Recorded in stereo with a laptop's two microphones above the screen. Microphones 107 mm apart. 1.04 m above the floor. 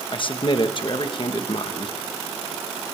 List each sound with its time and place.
0.1 s a man speaking: 45° left (ahead or behind), 1.4 m